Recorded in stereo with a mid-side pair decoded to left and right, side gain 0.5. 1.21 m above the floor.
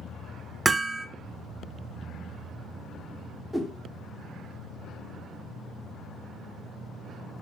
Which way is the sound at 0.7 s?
25° right.